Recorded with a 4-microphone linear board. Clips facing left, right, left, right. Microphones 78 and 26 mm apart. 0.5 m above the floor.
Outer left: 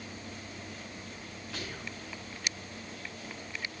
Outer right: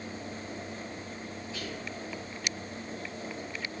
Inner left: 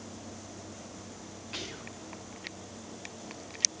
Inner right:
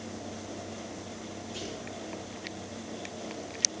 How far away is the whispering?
About 4 m.